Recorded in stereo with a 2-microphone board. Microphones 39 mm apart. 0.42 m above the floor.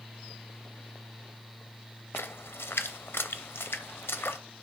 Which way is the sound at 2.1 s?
80° left.